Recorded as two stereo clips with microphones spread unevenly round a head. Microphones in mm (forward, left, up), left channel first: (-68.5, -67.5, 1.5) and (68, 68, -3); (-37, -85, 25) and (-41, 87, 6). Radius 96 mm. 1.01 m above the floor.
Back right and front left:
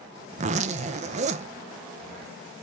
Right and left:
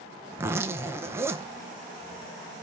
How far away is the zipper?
About 0.5 m.